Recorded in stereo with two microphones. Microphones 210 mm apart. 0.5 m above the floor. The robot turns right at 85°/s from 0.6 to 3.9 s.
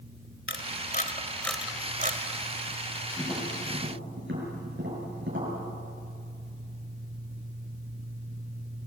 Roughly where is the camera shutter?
Left.